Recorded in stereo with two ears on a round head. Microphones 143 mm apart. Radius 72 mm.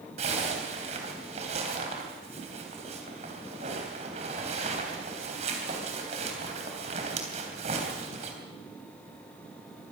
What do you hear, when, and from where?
0.2 s a zipper: 40° right (ahead or behind), 3.5 m